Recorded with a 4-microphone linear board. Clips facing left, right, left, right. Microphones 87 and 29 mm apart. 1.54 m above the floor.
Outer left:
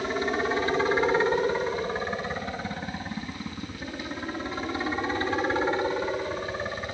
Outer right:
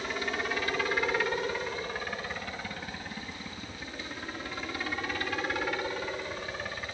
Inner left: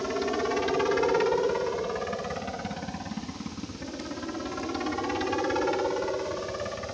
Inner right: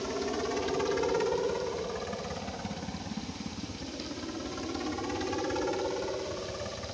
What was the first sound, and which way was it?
A helicopter, 30° left (ahead or behind).